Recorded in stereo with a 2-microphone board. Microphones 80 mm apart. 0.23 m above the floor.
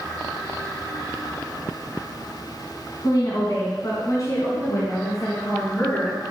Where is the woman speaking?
55° left (ahead or behind), 2.0 m; by 6.2 s 35° left (ahead or behind), 3 m.